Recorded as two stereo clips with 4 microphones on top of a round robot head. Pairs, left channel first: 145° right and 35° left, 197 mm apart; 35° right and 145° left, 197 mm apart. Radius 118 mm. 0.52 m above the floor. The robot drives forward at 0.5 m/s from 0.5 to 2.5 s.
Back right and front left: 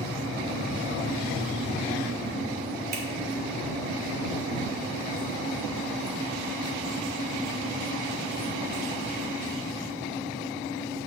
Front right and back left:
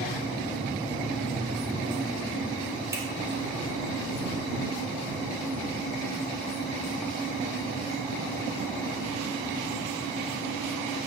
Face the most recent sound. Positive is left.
turn(degrees=70)